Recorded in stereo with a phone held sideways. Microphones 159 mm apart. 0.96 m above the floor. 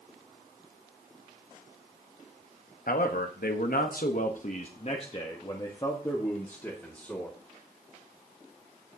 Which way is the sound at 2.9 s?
65° left (ahead or behind).